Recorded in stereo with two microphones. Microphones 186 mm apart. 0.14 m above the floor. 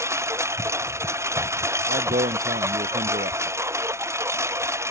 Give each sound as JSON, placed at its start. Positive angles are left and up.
{"t": 0.0, "sound": "a lawn mower", "side_deg": -15}
{"t": 1.9, "sound": "a man speaking", "side_deg": -50}